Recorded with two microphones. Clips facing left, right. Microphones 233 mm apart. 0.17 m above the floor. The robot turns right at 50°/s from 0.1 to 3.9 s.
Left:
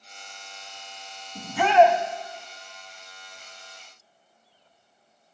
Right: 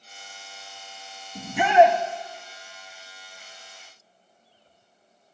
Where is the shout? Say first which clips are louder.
Right 1 dB; 15° right (ahead or behind), 1.1 m; by 2.0 s 20° right (ahead or behind), 1.1 m.